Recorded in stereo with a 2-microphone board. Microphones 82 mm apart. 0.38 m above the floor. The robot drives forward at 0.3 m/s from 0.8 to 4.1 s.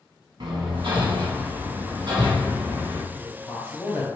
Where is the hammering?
85° right, 1.0 m; by 3.0 s 55° right (ahead or behind), 1.2 m.